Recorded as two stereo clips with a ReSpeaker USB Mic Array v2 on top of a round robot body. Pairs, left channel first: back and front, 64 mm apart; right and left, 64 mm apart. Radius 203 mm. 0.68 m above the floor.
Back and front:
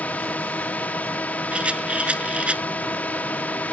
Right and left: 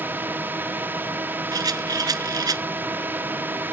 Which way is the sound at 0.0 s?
125° left.